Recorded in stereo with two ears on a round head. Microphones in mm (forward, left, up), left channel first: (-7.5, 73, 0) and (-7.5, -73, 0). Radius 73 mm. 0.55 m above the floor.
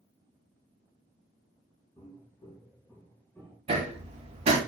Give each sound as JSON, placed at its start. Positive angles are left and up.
{"t": 2.0, "sound": "footsteps", "side_deg": 20, "distance_m": 5.0}
{"t": 3.7, "sound": "hammering", "side_deg": -40, "distance_m": 2.5}